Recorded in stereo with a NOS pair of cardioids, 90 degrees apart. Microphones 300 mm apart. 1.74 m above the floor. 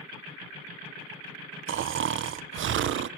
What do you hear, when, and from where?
1.7 s snoring: 40° right, 0.5 m